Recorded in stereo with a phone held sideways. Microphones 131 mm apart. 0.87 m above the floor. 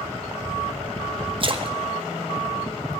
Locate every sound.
1.4 s a splash: 40° right (ahead or behind), 1.0 m